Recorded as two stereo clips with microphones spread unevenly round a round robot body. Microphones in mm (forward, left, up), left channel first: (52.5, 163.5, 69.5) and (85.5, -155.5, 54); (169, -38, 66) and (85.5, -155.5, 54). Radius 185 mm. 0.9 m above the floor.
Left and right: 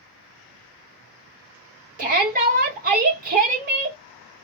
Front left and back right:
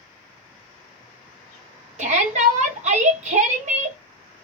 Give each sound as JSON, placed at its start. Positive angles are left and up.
{"t": 2.0, "sound": "a shout", "azimuth_deg": -140, "distance_m": 1.1}